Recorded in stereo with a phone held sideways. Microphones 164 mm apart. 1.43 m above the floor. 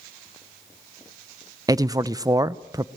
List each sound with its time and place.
1.7 s a man speaking: 20° right (ahead or behind), 0.7 m